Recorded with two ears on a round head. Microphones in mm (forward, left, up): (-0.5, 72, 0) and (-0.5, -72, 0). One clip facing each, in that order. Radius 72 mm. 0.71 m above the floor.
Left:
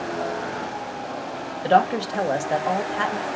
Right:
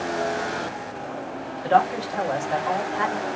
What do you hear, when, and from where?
1.6 s a woman speaking: 35° left (ahead or behind), 1.1 m